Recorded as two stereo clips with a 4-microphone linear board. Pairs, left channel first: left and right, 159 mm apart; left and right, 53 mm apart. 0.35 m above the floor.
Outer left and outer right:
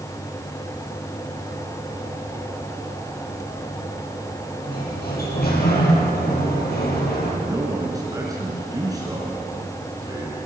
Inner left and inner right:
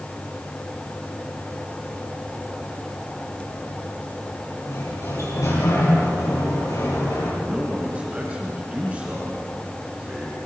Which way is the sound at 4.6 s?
80° left.